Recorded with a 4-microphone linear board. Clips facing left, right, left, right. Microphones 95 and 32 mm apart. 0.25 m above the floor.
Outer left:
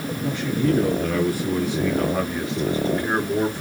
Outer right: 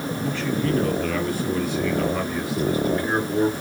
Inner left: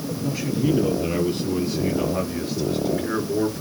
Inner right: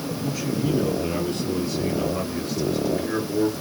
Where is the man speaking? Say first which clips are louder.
Outer left 3 dB, inner left 3 dB; 20° left (ahead or behind), 6.5 m; by 3.6 s 30° left (ahead or behind), 3 m.